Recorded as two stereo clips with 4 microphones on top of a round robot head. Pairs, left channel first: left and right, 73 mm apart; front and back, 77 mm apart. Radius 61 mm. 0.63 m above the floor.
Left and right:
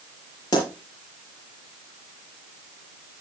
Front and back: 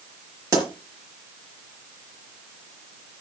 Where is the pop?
140° left, 5 m.